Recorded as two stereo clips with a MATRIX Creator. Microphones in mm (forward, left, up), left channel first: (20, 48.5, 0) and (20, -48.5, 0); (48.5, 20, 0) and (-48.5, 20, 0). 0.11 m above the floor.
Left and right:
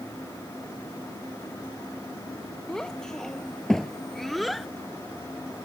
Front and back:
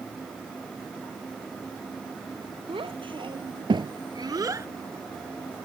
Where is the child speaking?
175° left; by 4.7 s straight behind.